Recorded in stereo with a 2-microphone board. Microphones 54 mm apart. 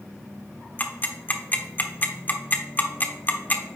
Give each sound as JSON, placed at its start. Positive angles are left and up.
{"t": 0.8, "sound": "ticking", "side_deg": 30, "distance_m": 0.9}